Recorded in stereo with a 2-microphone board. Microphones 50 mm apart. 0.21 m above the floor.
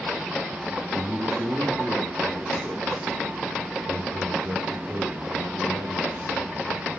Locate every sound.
0.9 s a man speaking: 55° right (ahead or behind), 3 m